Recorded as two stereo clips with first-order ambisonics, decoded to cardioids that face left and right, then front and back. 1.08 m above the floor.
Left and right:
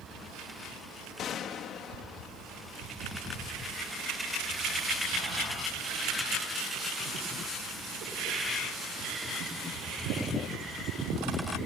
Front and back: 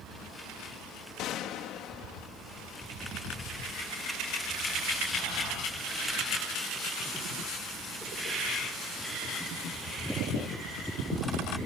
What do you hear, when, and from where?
1.2 s a gunshot: 40° left